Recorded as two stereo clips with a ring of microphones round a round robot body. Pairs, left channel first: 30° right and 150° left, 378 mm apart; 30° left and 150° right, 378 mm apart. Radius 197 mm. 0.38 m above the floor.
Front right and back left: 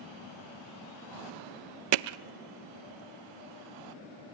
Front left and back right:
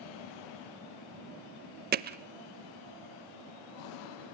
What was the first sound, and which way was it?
Hammering, 145° left.